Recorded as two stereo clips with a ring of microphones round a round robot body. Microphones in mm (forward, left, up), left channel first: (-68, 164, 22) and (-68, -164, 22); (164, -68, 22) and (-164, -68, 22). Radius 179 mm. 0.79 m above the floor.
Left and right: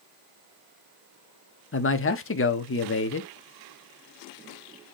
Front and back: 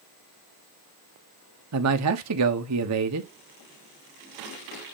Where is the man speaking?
140° left, 1.4 m.